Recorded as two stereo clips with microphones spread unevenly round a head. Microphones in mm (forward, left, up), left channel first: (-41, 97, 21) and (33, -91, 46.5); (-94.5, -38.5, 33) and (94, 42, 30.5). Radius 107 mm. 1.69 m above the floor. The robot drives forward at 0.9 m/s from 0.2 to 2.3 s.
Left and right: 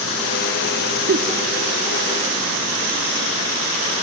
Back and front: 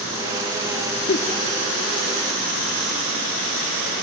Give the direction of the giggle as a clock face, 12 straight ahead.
4 o'clock.